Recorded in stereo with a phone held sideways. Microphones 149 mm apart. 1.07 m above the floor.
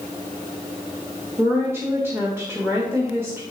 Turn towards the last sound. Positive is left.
turn(degrees=-15)  # may be behind; listen again after turning